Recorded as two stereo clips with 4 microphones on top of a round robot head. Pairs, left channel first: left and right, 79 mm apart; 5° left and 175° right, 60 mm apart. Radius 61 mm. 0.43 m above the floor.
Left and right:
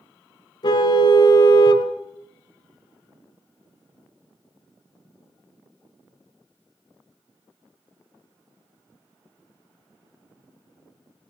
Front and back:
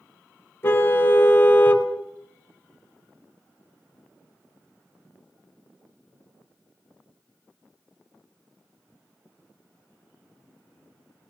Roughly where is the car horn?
Ahead left.